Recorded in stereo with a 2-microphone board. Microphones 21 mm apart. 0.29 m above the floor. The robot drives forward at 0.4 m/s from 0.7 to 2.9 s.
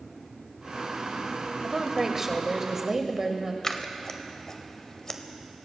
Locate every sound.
1.6 s a woman speaking: 20° right (ahead or behind), 1.0 m
3.6 s scissors: 30° left (ahead or behind), 0.7 m